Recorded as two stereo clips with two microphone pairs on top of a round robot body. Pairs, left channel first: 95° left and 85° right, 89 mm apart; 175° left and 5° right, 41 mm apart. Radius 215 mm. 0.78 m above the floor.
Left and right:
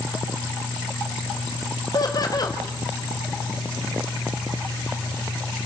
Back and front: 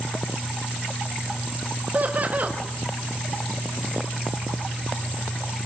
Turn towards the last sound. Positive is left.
turn(degrees=50)